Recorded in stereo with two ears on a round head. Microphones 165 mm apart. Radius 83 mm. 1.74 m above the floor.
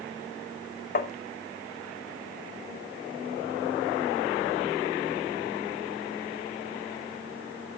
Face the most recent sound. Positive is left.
turn(degrees=50)  # may be behind; listen again after turning